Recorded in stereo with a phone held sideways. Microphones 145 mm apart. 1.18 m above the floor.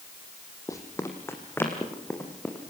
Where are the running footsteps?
20° left (ahead or behind), 3 m; by 2.7 s 10° left (ahead or behind), 5 m.